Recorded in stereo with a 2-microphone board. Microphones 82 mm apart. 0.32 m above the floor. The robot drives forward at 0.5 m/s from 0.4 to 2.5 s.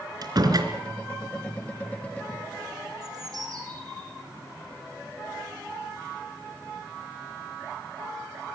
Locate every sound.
0.2 s a door slam: 50° right (ahead or behind), 3.5 m
3.0 s a bird: 45° right (ahead or behind), 6 m